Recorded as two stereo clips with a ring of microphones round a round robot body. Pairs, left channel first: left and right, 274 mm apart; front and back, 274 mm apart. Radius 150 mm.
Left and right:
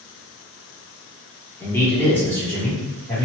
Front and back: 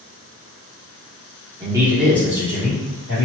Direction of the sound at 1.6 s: 155° left.